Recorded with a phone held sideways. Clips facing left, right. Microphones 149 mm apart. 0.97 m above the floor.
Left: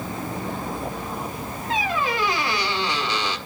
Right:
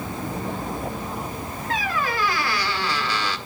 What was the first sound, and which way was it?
A squeak, 20° left (ahead or behind).